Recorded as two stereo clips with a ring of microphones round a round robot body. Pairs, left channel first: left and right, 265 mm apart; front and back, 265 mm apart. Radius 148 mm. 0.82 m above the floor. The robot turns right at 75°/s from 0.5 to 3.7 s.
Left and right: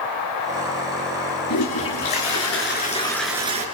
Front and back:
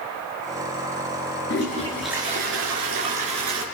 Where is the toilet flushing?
50° left, 5 m; by 3.6 s 150° right, 5 m.